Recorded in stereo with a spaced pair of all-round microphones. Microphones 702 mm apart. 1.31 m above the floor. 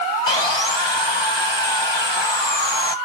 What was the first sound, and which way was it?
Sawing, 40° left (ahead or behind).